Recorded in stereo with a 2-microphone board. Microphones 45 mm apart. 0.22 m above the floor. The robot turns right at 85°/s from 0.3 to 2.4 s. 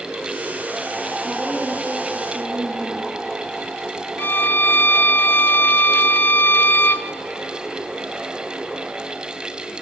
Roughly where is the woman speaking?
Behind.